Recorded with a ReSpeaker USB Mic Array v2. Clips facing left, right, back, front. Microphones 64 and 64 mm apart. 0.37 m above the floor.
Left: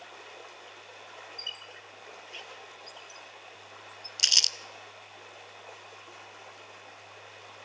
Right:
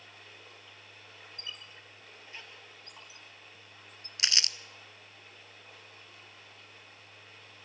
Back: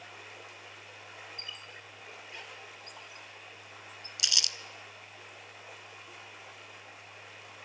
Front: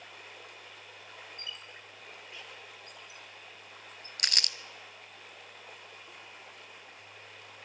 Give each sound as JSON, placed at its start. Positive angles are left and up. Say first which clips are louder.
{"t": 0.0, "sound": "running water", "louder": "left 6 dB, back 1 dB", "azimuth_deg": 95, "distance_m": 3.0}
{"t": 1.4, "sound": "a squeak", "louder": "left 3 dB, even", "azimuth_deg": -145, "distance_m": 2.5}
{"t": 4.2, "sound": "crumpling", "louder": "left 1 dB, front 1 dB", "azimuth_deg": -35, "distance_m": 0.6}